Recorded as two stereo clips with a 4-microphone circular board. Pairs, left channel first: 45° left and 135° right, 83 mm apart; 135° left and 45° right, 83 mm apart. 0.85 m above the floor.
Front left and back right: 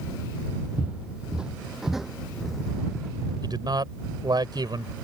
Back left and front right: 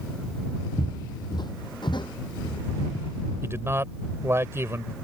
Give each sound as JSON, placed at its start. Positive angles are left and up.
{"t": 0.8, "sound": "footsteps", "azimuth_deg": 155}
{"t": 3.4, "sound": "a man speaking", "azimuth_deg": -105}